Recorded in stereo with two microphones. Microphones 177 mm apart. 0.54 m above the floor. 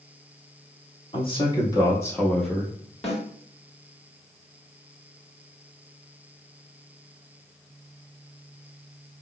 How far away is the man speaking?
About 1.3 m.